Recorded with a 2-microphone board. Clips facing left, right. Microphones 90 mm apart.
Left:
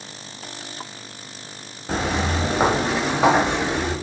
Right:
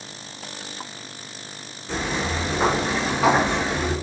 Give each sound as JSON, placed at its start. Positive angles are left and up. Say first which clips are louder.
{"t": 1.9, "sound": "footsteps", "louder": "left 3 dB", "side_deg": 40, "distance_m": 1.1}